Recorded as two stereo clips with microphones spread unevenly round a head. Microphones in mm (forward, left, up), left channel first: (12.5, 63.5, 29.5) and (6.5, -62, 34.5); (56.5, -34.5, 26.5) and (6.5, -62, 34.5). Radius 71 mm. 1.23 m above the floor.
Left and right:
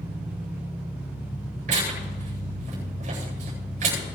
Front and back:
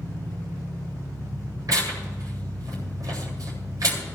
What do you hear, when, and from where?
0.0 s an engine running: 170° right, 7 m
1.7 s tearing paper: 130° right, 8.5 m